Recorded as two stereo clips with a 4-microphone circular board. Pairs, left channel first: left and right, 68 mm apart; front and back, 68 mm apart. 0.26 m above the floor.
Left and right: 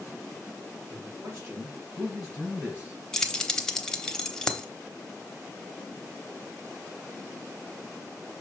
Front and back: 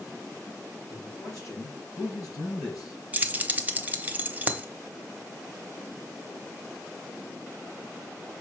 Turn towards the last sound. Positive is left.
turn(degrees=155)